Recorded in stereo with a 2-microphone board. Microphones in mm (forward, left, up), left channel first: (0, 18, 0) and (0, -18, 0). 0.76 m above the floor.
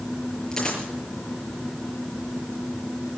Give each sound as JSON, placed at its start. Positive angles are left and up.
{"t": 0.5, "sound": "a dropped coin", "side_deg": 15, "distance_m": 6.0}